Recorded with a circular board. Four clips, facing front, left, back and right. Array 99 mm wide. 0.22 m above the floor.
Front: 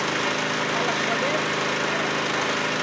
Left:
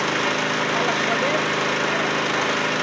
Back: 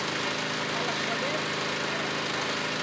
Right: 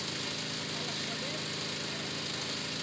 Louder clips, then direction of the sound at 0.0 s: Left 18 dB, front 6 dB; 65° left.